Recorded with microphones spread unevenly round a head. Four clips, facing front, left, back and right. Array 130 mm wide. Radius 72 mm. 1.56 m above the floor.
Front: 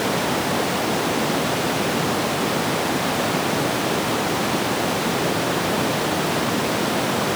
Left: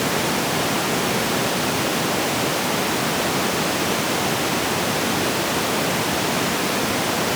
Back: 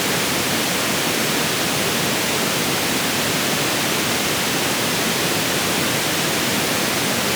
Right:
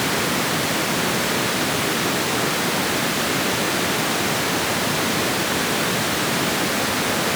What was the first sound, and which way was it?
Only background noise.